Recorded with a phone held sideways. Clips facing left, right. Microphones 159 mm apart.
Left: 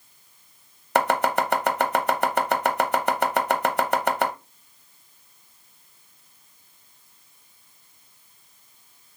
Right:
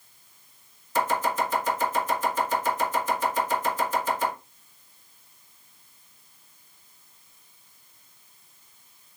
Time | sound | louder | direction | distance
0.9 | chopping | left 4 dB | 65° left (ahead or behind) | 0.8 m